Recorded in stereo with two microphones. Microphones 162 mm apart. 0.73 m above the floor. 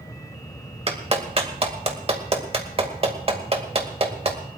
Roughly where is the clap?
Right.